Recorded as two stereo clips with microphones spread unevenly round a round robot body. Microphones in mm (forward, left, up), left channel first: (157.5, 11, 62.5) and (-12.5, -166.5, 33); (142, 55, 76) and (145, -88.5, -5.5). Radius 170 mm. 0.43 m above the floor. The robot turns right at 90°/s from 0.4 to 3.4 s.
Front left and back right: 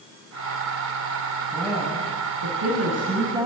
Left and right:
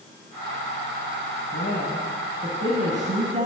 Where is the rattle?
No rattle in this recording.